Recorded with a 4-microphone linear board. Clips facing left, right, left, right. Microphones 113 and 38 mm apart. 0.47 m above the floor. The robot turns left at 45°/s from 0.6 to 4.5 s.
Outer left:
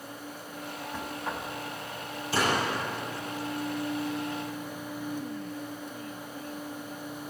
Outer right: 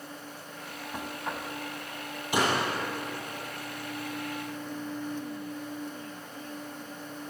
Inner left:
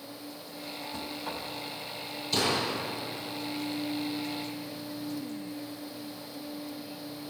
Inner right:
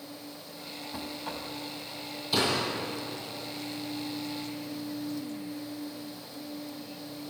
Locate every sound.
0.9 s knocking: 15° right (ahead or behind), 2 m; by 1.5 s 10° left (ahead or behind), 2 m
2.3 s a door slam: 20° right (ahead or behind), 9.5 m; by 2.7 s centre (ahead or behind), 9.5 m